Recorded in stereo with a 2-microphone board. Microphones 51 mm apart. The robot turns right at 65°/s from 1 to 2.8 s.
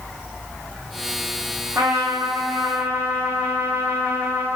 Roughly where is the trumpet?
Right.